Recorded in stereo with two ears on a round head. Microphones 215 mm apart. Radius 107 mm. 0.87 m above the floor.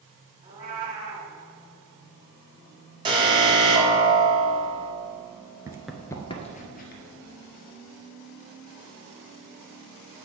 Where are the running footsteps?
15° right (ahead or behind), 0.8 m; by 7.0 s 45° left (ahead or behind), 1.4 m.